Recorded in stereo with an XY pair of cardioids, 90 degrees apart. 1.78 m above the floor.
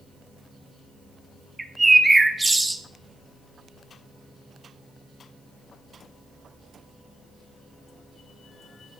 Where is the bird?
15° right, 0.6 m.